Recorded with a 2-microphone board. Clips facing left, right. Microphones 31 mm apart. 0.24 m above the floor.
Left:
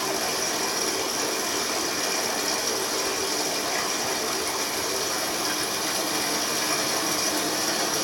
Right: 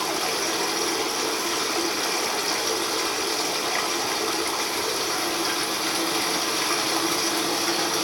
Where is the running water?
40° right (ahead or behind), 1.0 m.